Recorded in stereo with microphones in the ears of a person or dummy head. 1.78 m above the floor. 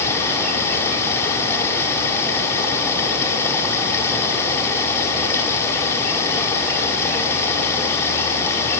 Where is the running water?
15° left (ahead or behind), 4 m.